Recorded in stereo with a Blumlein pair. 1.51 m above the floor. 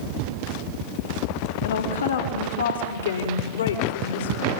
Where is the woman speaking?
70° left, 4.5 m; by 4.5 s 65° left, 5.5 m.